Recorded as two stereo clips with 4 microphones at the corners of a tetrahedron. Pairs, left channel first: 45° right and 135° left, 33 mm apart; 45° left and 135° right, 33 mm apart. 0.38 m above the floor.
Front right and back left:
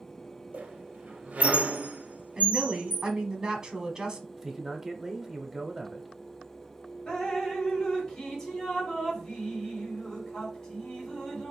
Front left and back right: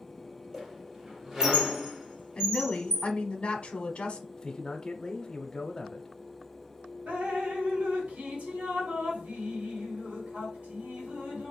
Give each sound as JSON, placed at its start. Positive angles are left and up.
{"t": 0.5, "sound": "a squeak", "azimuth_deg": 160, "distance_m": 1.2}
{"t": 2.4, "sound": "a woman speaking", "azimuth_deg": 85, "distance_m": 0.9}
{"t": 4.4, "sound": "a man speaking", "azimuth_deg": 75, "distance_m": 0.9}
{"t": 7.1, "sound": "dripping", "azimuth_deg": -105, "distance_m": 2.0}